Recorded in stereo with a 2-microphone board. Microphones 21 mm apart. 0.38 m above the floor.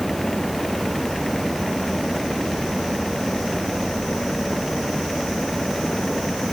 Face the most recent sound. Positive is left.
No sound to turn to.